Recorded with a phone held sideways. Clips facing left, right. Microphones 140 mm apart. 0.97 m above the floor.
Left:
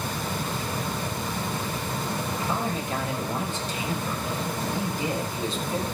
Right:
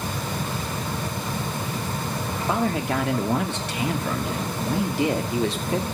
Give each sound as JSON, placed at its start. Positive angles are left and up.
{"t": 2.5, "sound": "a man speaking", "side_deg": -70, "distance_m": 2.5}